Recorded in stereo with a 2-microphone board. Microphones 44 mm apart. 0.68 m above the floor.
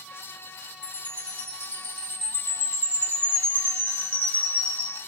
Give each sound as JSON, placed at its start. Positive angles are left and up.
{"t": 0.8, "sound": "a chime", "side_deg": 50, "distance_m": 1.5}